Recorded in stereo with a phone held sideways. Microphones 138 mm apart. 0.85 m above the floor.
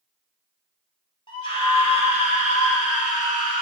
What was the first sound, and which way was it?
A scream, 40° left (ahead or behind).